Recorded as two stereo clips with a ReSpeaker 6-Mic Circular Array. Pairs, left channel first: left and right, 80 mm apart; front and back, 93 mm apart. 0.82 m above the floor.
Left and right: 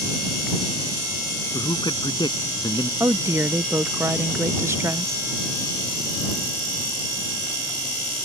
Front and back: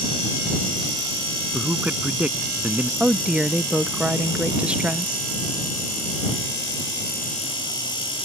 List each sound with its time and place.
1.5 s a man speaking: 105° left
3.0 s a woman speaking: 110° right